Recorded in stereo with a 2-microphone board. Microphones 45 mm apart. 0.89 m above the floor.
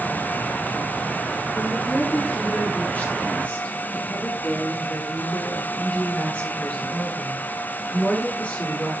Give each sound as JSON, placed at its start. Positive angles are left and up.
{"t": 1.6, "sound": "a woman speaking", "side_deg": 40, "distance_m": 8.5}